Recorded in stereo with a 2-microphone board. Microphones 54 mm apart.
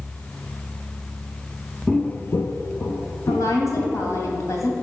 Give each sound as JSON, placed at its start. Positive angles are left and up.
{"t": 1.9, "sound": "footsteps", "side_deg": 15, "distance_m": 0.5}
{"t": 3.3, "sound": "a woman speaking", "side_deg": 65, "distance_m": 2.5}